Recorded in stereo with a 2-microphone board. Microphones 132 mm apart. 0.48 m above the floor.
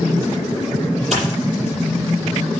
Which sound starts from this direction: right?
A dropped coin, at 1.1 s.